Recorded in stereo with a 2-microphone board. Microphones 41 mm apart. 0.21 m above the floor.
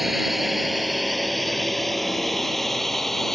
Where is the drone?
5° right (ahead or behind); by 3.4 s 5° left (ahead or behind).